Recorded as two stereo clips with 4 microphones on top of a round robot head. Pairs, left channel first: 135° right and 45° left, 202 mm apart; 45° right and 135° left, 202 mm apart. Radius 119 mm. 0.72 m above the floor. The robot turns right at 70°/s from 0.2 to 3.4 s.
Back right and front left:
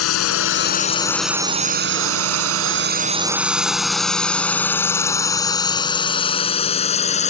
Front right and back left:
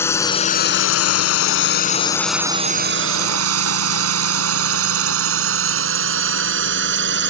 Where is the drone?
125° right; by 7.3 s 170° left.